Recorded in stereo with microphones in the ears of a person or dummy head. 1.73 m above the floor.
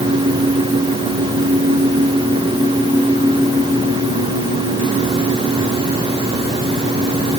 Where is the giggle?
I don't hear a giggle.